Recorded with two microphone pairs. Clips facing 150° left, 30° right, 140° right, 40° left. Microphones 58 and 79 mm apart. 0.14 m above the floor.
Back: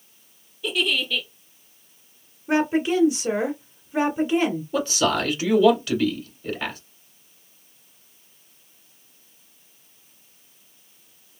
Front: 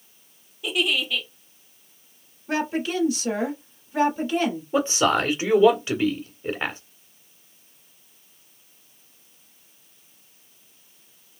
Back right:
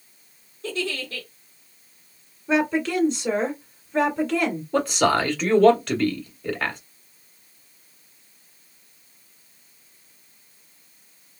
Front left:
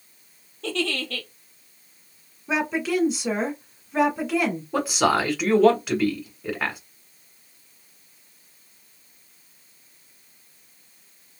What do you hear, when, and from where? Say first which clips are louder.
0.6 s a giggle: even, front left 2 dB; 45° left, 1.9 m
2.5 s a woman speaking: back 5 dB, back right 2 dB; 115° left, 1.6 m
4.7 s a man speaking: front 4 dB, back right 1 dB; 35° right, 1.3 m